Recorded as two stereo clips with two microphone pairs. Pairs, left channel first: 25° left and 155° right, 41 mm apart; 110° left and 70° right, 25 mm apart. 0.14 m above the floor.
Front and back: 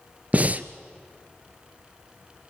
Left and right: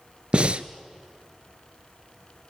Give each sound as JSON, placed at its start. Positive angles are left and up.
{"t": 0.3, "sound": "breathing", "azimuth_deg": -105, "distance_m": 0.7}